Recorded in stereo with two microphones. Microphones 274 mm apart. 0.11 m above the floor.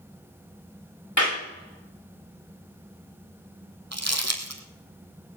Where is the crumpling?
65° right (ahead or behind), 2.0 m.